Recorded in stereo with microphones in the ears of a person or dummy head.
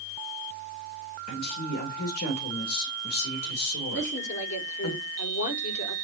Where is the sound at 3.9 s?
45° left (ahead or behind), 3.5 m.